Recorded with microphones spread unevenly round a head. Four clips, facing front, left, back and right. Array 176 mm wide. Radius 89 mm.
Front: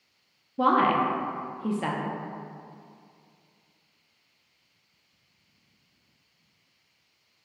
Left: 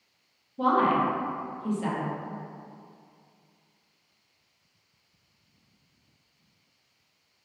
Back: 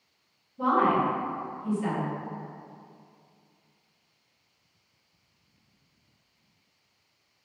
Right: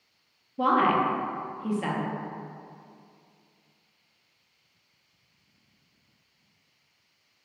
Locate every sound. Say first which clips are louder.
0.6 s a woman speaking: even, front 1 dB; 15° right, 0.5 m